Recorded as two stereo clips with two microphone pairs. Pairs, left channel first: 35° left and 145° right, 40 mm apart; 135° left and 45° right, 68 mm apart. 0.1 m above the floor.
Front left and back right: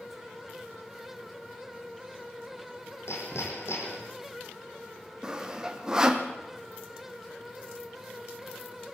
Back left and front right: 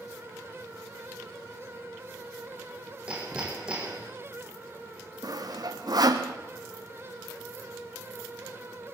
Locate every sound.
3.1 s hammering: 30° left, 4 m
5.2 s sawing: 70° right, 1.7 m